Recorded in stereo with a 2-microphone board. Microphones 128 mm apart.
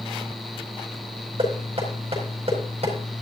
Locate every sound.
1.4 s knocking: 50° right (ahead or behind), 4.5 m